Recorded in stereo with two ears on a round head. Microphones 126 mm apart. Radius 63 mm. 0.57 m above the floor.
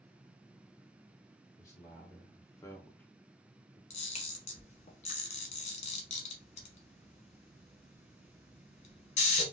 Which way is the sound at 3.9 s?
50° left (ahead or behind).